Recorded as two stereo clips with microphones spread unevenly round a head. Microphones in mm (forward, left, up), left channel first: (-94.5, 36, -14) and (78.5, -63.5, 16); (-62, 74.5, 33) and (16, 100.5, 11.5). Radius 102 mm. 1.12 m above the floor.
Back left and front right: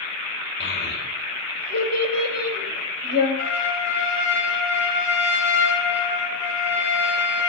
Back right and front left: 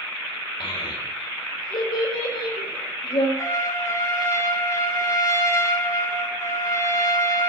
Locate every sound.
0.6 s a child speaking: 175° right, 3 m
3.4 s a trumpet: 160° left, 3 m